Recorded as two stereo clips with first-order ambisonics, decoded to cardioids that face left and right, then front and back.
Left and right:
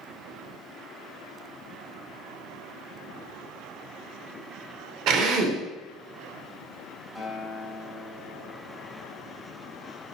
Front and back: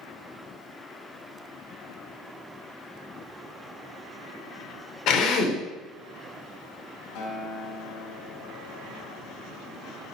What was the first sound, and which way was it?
A drill, 45° right.